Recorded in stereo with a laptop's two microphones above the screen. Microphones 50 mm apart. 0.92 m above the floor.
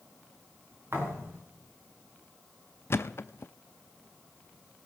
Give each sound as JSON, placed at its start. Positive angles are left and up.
{"t": 0.9, "sound": "a thud", "side_deg": -60, "distance_m": 4.5}
{"t": 2.9, "sound": "a thud", "side_deg": 55, "distance_m": 0.5}